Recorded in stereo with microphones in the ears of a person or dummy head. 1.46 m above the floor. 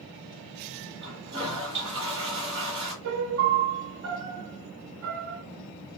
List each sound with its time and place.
1.0 s a toilet flushing: 30° right (ahead or behind), 1.9 m
3.0 s a piano: 70° right (ahead or behind), 0.8 m